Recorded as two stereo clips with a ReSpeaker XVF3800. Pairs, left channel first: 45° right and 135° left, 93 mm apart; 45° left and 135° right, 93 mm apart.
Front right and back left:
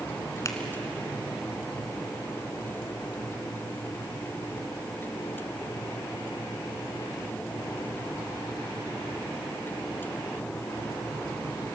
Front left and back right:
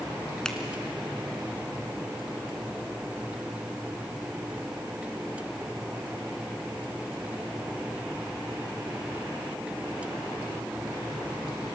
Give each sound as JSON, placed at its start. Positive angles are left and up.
{"t": 0.5, "sound": "a finger snap", "azimuth_deg": -30, "distance_m": 1.7}